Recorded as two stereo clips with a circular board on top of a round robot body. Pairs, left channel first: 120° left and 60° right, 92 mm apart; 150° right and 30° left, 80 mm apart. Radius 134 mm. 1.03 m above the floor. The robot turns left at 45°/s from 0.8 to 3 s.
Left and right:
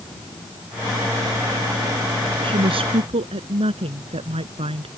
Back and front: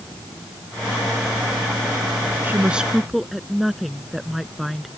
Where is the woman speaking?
30° right; by 4.9 s 55° right.